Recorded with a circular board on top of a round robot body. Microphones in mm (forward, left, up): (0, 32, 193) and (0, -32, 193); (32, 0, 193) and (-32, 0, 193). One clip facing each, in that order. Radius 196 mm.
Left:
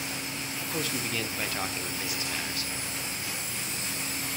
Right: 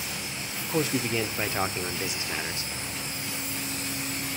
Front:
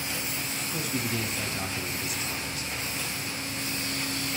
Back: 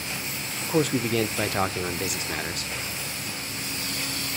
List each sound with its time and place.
0.7 s a man speaking: 155° right, 0.5 m